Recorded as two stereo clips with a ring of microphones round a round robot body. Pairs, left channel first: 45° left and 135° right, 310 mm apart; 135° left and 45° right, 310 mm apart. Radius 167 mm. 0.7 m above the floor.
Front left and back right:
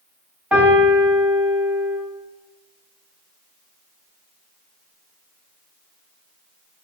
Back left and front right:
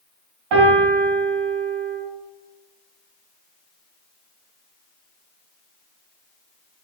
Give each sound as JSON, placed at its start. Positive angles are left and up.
{"t": 0.5, "sound": "a piano", "azimuth_deg": -50, "distance_m": 1.0}